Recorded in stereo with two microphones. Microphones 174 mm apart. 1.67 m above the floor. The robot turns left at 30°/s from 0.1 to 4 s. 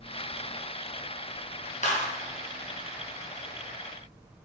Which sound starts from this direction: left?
A clap, at 1.8 s.